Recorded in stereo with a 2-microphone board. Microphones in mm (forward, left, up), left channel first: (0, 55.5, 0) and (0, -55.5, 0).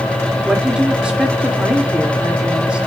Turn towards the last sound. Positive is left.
turn(degrees=-10)  # may be behind; listen again after turning